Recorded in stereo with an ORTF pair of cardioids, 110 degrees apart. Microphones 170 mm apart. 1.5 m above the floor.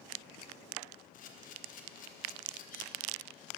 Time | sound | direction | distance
1.1 | a camera shutter | 55° left | 0.9 m